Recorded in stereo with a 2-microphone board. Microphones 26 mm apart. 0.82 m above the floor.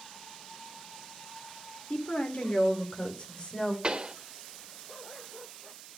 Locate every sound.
1.9 s a woman speaking: 55° left (ahead or behind), 3 m; by 3.7 s 25° left (ahead or behind), 3.5 m
3.8 s a pop: 35° right (ahead or behind), 1.7 m